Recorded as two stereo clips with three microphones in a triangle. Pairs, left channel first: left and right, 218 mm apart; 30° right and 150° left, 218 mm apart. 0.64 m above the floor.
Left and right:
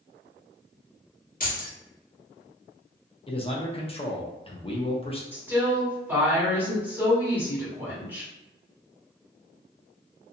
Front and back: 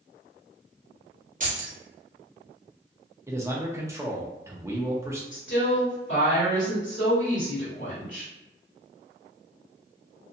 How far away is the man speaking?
About 0.6 m.